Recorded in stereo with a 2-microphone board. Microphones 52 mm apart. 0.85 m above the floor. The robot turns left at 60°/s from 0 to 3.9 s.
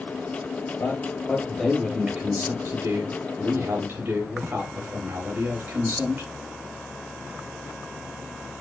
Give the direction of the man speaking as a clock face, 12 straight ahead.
10 o'clock.